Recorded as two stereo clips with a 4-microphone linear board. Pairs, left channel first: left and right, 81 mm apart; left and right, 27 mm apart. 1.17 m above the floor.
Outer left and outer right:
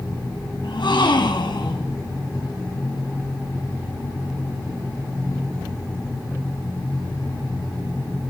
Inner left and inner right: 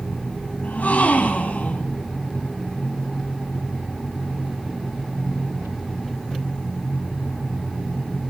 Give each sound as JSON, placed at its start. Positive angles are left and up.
{"t": 0.6, "sound": "a gasp", "side_deg": 75, "distance_m": 3.0}